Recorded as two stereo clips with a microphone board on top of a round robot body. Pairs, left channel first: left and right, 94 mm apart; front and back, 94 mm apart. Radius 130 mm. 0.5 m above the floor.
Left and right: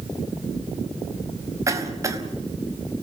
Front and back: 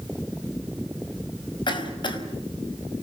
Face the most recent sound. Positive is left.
turn(degrees=-35)